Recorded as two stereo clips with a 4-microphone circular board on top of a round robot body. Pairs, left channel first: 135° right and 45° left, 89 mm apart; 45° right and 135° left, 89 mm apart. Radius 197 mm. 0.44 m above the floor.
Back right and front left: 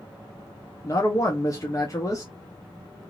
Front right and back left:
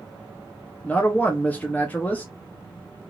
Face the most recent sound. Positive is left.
turn(degrees=-110)